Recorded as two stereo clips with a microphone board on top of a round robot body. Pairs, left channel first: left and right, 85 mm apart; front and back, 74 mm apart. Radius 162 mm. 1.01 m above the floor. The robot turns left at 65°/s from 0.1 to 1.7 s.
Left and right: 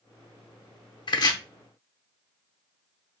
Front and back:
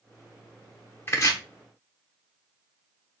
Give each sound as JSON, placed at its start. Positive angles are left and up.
{"t": 1.1, "sound": "chopping", "azimuth_deg": 60, "distance_m": 0.7}